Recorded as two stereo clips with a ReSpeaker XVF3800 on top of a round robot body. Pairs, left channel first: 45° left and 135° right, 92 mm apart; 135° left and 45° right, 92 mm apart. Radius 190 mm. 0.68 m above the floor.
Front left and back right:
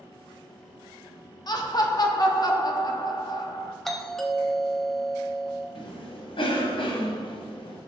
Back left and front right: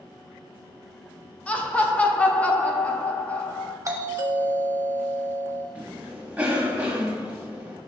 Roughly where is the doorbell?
Ahead right.